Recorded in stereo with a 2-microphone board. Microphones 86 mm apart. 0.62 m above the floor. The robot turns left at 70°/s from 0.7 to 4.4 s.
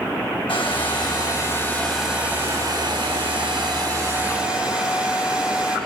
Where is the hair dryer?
90° left, 5 m; by 5.8 s 165° right, 5 m.